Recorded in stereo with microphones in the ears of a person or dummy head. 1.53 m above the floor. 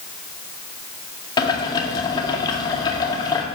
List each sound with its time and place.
1.4 s boiling: 20° left (ahead or behind), 1.8 m